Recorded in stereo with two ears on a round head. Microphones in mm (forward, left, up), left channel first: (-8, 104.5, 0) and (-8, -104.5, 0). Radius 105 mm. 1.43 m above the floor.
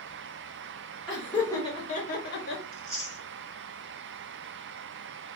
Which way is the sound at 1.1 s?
5° right (ahead or behind).